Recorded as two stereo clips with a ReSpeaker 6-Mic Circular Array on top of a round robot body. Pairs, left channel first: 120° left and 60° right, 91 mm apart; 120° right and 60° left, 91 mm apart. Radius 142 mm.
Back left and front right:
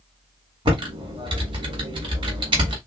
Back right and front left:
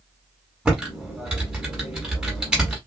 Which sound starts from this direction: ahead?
Typing on a keyboard, at 0.7 s.